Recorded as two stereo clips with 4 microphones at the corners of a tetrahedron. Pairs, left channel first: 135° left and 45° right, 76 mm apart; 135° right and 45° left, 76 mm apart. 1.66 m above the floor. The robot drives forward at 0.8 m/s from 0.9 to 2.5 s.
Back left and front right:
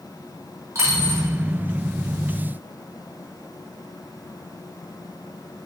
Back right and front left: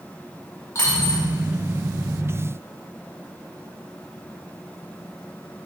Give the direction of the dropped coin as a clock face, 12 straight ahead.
3 o'clock.